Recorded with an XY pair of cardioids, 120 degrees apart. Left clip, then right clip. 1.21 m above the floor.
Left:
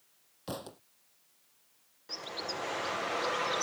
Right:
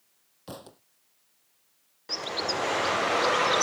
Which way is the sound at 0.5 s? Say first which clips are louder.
Left 2 dB; 10° left.